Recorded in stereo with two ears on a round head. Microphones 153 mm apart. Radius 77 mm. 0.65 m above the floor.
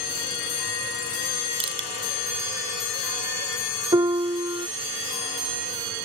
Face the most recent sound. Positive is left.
turn(degrees=-20)  # may be behind; listen again after turning